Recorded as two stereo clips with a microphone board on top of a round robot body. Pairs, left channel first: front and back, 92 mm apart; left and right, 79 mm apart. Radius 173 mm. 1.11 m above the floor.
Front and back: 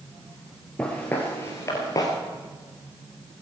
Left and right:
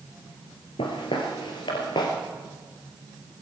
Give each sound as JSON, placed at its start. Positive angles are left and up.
{"t": 0.8, "sound": "footsteps", "azimuth_deg": 80, "distance_m": 1.5}